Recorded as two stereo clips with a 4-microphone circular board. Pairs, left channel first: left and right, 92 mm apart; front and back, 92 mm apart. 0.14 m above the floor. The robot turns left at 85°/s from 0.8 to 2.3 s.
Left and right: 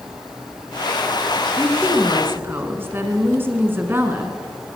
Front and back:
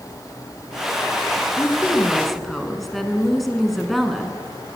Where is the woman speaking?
25° right, 1.3 m; by 4.4 s 85° right, 1.3 m.